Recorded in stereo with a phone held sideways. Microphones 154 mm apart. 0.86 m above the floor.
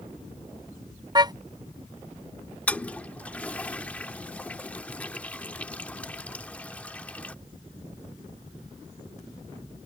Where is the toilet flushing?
10° left (ahead or behind).